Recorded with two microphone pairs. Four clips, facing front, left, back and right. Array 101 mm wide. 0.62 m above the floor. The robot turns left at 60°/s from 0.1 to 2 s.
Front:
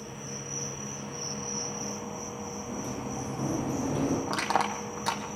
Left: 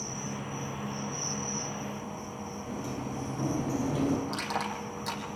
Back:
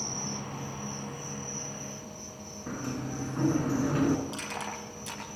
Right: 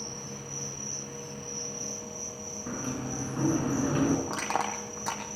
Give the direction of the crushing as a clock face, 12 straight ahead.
1 o'clock.